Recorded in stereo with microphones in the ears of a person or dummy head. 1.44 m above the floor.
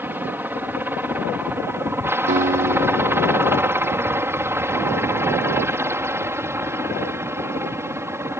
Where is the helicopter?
10° right (ahead or behind).